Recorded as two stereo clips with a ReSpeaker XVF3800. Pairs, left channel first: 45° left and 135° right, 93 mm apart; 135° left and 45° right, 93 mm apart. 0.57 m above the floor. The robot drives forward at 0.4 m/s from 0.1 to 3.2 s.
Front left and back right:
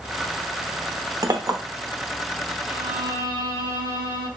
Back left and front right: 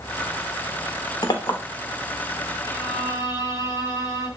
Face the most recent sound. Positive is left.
turn(degrees=-175)